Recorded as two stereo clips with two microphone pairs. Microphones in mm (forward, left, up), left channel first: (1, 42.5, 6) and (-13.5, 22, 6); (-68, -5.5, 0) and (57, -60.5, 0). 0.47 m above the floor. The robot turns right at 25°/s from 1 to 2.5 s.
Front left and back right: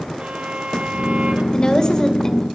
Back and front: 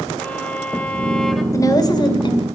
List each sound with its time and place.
0.2 s a violin: 125° right, 1.7 m; by 1.4 s 115° right, 1.7 m
1.5 s a woman speaking: 95° left, 2.0 m; by 2.5 s 120° left, 2.0 m